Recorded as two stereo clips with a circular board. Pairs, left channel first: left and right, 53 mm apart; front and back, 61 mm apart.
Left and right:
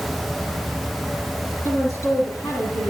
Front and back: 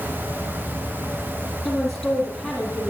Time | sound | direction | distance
1.6 | a woman speaking | 90° left | 4.5 m